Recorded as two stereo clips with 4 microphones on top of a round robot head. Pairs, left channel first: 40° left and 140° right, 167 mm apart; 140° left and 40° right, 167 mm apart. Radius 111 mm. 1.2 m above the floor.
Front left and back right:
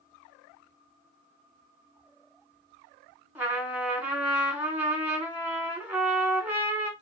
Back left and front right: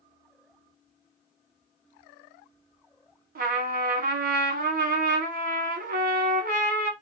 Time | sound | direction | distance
3.4 | a trumpet | 60° right | 1.0 m